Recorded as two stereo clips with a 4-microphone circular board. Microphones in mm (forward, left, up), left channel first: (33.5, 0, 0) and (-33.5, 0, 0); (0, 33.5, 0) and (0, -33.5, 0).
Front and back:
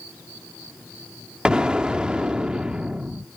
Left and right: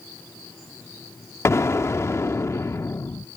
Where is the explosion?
110° left.